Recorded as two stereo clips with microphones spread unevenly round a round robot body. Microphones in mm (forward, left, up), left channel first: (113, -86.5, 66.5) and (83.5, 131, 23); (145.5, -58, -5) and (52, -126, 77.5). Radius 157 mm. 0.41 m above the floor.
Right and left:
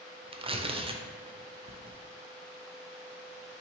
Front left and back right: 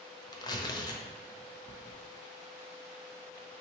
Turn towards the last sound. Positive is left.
turn(degrees=40)